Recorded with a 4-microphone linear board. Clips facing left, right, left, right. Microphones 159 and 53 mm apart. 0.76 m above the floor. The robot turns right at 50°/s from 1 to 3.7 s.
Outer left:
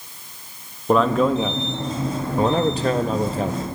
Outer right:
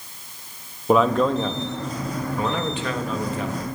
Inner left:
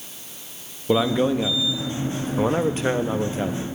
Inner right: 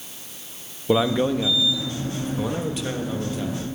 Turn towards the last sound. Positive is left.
turn(degrees=130)